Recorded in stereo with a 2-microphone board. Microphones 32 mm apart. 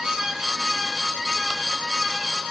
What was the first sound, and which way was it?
Only background noise.